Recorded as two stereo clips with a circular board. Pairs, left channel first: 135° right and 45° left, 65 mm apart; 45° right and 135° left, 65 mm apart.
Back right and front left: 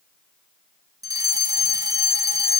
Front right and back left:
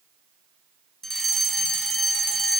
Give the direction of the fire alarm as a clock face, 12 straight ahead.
11 o'clock.